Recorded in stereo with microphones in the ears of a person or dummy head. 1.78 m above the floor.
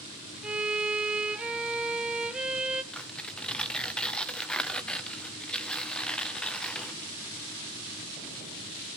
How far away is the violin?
About 0.6 m.